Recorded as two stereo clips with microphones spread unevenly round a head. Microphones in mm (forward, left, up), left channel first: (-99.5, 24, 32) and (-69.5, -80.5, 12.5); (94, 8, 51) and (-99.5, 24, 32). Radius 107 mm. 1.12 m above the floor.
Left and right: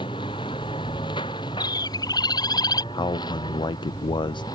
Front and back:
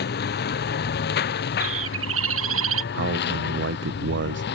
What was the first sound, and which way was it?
A lawn mower, 35° left.